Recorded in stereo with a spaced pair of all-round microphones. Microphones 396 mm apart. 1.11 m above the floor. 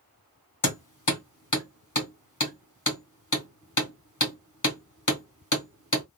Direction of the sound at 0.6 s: 50° left (ahead or behind).